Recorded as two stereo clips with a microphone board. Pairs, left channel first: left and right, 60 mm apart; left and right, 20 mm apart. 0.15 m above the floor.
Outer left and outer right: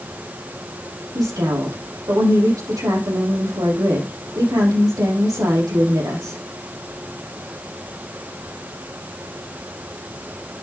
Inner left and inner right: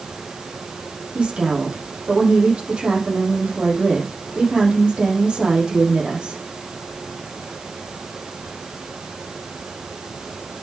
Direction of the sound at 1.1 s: 75° right (ahead or behind).